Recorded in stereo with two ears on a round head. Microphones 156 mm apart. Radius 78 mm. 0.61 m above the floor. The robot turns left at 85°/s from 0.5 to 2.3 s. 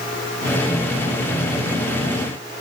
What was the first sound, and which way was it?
Only background noise.